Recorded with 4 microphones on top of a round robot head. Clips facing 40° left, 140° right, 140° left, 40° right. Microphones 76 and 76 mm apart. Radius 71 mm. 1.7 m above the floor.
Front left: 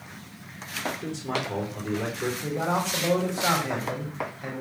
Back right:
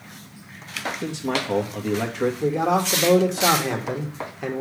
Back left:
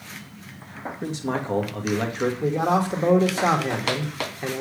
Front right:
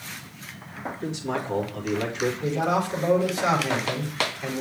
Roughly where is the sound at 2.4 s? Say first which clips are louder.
Back right 6 dB, back left 3 dB; behind.